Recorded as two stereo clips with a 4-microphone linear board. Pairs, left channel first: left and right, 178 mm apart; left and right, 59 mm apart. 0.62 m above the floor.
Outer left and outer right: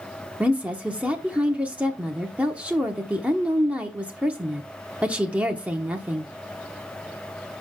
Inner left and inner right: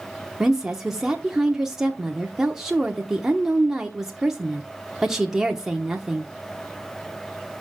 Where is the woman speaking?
10° right (ahead or behind), 1.0 m.